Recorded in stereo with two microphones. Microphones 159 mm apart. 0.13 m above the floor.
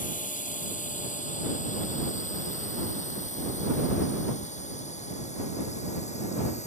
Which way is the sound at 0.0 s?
55° left (ahead or behind).